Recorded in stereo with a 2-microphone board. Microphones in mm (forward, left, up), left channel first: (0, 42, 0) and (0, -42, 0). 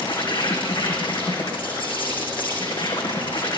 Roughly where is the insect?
Left.